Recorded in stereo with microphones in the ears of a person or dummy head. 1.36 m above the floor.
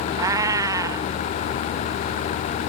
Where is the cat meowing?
20° right (ahead or behind).